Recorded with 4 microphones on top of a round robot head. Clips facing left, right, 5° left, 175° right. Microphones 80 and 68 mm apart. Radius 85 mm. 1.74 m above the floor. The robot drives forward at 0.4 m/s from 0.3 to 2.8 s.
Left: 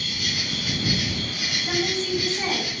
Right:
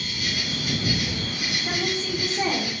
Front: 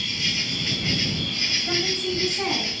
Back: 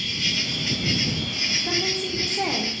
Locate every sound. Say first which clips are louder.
0.0 s an insect: right 1 dB, back 1 dB; 85° left, 1.2 m; by 2.8 s 130° left, 1.5 m
1.7 s a woman speaking: left 3 dB, front 1 dB; 155° right, 0.8 m; by 2.7 s 165° right, 1.1 m